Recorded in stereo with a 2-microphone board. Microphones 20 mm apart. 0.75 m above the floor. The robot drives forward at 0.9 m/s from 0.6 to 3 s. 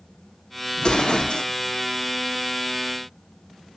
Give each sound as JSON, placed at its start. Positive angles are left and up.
{"t": 0.8, "sound": "an explosion", "side_deg": 40, "distance_m": 1.8}